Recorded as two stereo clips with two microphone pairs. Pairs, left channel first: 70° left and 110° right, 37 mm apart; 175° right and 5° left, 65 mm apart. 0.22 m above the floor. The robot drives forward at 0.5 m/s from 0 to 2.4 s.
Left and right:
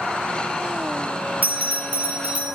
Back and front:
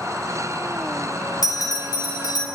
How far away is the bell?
About 0.7 m.